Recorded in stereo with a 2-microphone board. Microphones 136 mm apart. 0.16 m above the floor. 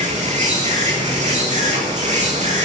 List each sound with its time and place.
0.0 s an insect: 65° right (ahead or behind), 8 m